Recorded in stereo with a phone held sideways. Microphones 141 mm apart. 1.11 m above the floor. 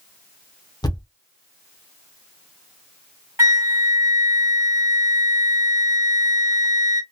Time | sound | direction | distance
0.8 | a thud | 30° left (ahead or behind) | 0.8 m
3.4 | a flute | 20° right (ahead or behind) | 1.2 m